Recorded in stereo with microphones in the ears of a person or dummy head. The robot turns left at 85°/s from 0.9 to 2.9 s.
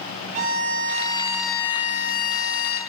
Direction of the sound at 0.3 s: 130° right.